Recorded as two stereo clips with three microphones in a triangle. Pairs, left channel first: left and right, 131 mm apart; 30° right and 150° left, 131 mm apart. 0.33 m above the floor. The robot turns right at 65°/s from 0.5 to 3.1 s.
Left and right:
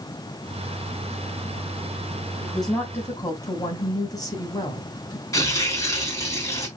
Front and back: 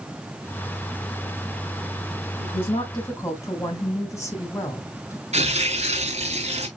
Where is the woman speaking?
10° right, 3 m; by 5.2 s 35° left, 3 m.